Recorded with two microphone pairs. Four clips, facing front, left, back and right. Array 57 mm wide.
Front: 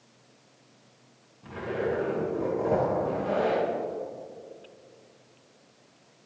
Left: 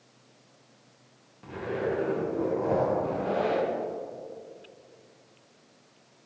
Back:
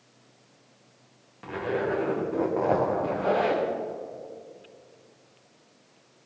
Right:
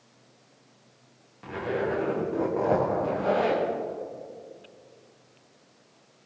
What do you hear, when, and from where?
1.4 s a zipper: 155° right, 5.5 m